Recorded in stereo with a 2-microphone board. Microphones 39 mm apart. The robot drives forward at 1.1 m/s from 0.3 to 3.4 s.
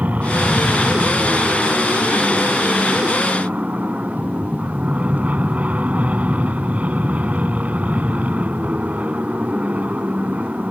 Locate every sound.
0.0 s an aircraft: 45° right (ahead or behind); by 10.7 s 40° right (ahead or behind)